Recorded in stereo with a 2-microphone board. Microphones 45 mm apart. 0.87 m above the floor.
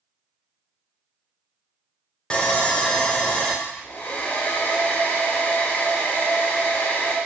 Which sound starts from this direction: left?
A hair dryer, at 3.6 s.